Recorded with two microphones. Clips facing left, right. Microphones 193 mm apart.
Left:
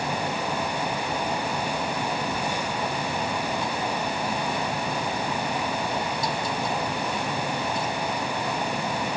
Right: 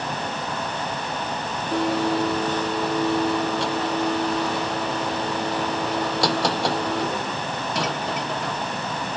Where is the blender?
75° right (ahead or behind).